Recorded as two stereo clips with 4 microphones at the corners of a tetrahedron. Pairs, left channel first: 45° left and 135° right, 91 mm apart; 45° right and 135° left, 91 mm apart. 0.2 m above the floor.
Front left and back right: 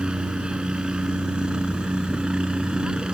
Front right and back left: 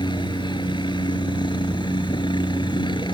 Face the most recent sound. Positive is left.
turn(degrees=-55)